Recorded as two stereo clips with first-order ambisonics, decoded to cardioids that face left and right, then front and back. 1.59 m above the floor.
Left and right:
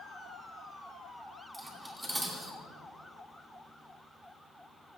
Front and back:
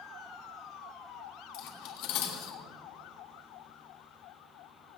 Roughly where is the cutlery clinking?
Ahead.